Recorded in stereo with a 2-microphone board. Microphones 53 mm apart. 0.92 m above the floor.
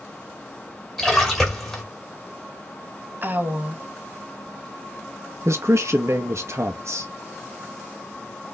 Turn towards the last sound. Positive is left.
turn(degrees=-65)  # may be behind; listen again after turning